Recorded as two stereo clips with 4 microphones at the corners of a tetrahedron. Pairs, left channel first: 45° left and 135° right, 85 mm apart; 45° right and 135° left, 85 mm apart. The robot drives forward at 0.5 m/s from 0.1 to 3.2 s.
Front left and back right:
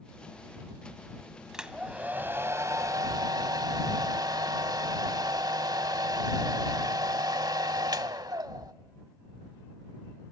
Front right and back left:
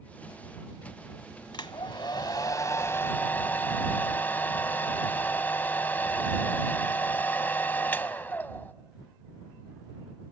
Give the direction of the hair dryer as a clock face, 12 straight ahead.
2 o'clock.